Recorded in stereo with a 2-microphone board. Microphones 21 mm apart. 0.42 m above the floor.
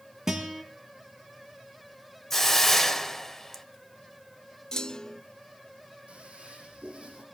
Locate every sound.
0.3 s a guitar: 25° right (ahead or behind), 5 m
2.3 s a hiss: 10° left (ahead or behind), 1.7 m
4.7 s a clunk: 30° left (ahead or behind), 0.8 m
6.1 s a toilet flushing: 55° right (ahead or behind), 7.5 m